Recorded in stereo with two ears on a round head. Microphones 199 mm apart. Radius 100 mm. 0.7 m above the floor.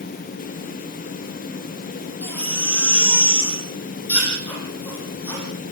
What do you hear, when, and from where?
2.2 s a baby crying: 5° left (ahead or behind), 9 m